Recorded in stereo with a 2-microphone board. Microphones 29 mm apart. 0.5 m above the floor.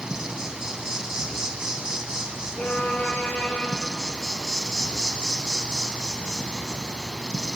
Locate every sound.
0.0 s an insect: 25° right (ahead or behind), 1.1 m
2.6 s a violin: 70° left (ahead or behind), 1.7 m